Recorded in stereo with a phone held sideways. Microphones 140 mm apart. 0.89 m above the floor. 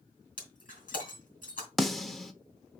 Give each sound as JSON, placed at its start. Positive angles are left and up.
{"t": 0.4, "sound": "breaking glass", "side_deg": 70, "distance_m": 3.5}
{"t": 1.8, "sound": "a snare drum", "side_deg": 0, "distance_m": 0.9}